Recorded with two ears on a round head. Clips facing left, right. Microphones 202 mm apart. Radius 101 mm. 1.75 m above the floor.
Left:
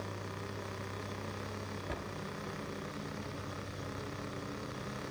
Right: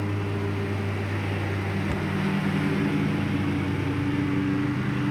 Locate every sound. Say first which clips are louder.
0.0 s a lawn mower: right 14 dB; 80° right
1.9 s a cupboard door: right 13 dB; 60° right (ahead or behind)